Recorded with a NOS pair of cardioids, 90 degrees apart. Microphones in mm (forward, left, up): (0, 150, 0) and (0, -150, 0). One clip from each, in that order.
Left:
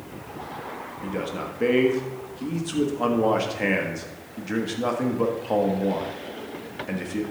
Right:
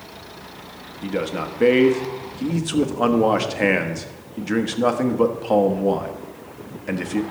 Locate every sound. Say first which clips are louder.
1.0 s a man speaking: right 6 dB; 30° right, 1.2 m